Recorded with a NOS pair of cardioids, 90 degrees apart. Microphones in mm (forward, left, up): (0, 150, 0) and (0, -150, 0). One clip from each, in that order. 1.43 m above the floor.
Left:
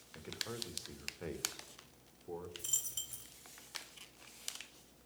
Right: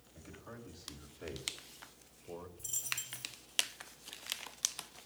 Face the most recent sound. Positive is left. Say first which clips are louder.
# right 2 dB
turn(degrees=55)